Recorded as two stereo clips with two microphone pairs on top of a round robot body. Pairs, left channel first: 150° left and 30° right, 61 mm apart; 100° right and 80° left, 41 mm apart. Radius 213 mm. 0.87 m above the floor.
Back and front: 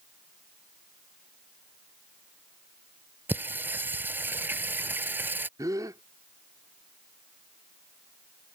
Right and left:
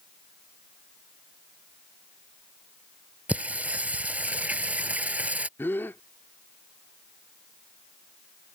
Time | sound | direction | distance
3.3 | singing | 25° left | ?
5.6 | a gasp | 65° right | ?